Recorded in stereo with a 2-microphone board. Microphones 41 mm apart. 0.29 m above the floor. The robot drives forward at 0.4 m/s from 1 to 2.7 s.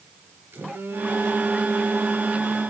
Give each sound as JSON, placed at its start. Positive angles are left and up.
{"t": 0.5, "sound": "a phone buzzing", "side_deg": -70, "distance_m": 5.5}